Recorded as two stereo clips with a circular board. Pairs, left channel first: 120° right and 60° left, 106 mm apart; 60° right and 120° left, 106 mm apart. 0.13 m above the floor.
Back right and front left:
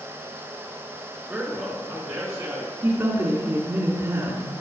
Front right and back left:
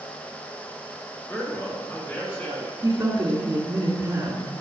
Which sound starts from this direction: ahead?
A man speaking, at 1.3 s.